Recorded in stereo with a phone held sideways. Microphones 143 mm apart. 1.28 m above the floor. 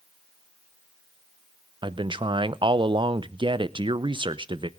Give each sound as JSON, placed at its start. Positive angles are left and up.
{"t": 1.8, "sound": "a man speaking", "side_deg": -35, "distance_m": 0.6}